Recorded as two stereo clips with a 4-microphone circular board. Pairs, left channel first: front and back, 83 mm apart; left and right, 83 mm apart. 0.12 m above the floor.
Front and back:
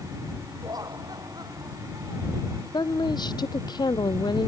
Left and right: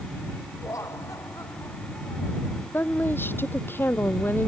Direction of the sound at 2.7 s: 30° left.